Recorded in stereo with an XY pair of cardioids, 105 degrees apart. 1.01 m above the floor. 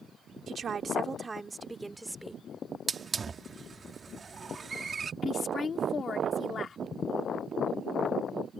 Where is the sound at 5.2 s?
40° left.